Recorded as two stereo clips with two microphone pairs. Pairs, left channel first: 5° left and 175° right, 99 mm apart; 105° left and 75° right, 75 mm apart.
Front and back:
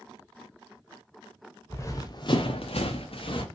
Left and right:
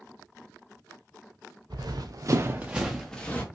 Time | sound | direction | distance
1.7 | running footsteps | 60° right | 0.9 m